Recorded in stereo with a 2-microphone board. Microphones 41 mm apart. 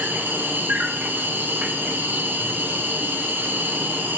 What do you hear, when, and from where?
0.0 s an insect: 55° right (ahead or behind), 1.4 m